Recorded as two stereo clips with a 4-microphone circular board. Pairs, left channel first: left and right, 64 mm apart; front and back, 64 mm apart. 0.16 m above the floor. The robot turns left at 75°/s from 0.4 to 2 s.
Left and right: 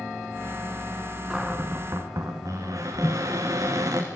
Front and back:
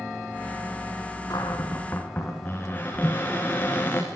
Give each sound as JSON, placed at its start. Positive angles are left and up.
{"t": 1.3, "sound": "a cupboard door", "azimuth_deg": -10, "distance_m": 4.0}
{"t": 3.0, "sound": "a microwave", "azimuth_deg": -70, "distance_m": 0.9}